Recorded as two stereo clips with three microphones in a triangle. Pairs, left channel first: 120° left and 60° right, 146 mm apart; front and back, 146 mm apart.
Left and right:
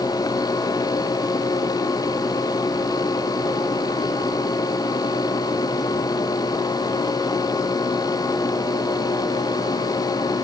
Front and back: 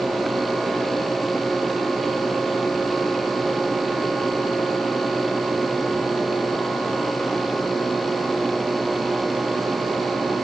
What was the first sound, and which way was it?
Only background noise.